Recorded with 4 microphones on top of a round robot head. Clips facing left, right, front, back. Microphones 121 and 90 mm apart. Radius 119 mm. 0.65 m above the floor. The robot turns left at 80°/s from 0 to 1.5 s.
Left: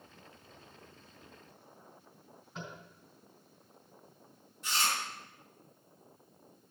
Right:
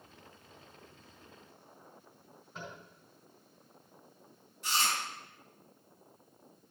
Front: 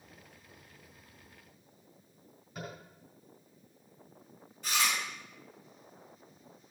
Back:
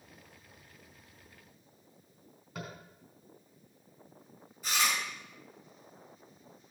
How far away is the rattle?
No rattle in this recording.